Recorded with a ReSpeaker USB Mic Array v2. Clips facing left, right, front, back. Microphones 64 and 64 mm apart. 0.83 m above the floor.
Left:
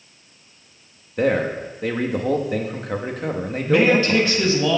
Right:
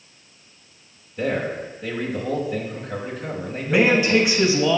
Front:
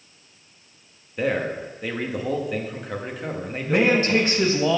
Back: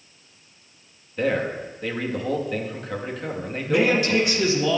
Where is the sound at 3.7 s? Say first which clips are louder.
Left 1 dB, front 1 dB; 20° right, 0.9 m.